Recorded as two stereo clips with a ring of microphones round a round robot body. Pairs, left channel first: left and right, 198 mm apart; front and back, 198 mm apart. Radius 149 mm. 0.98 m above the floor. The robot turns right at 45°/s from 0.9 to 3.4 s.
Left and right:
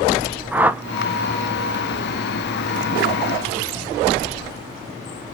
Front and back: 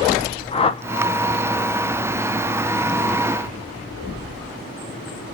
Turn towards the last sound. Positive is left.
turn(degrees=95)